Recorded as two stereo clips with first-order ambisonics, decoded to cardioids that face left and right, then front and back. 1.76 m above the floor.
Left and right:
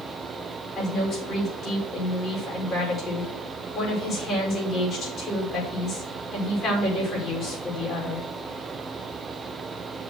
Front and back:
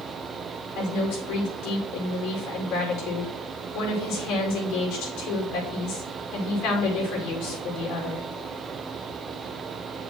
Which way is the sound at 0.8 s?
25° left.